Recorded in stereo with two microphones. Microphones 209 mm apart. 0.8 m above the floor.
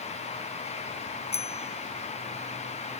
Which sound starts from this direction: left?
A bicycle bell, at 1.3 s.